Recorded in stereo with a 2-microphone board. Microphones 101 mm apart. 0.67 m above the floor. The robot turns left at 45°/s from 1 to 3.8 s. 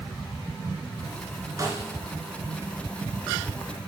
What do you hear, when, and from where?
1.6 s a snare drum: 40° right (ahead or behind), 1.7 m; by 1.9 s 25° right (ahead or behind), 1.7 m